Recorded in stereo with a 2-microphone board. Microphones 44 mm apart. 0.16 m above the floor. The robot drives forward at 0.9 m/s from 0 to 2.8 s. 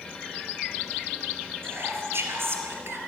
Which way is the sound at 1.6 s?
60° right (ahead or behind).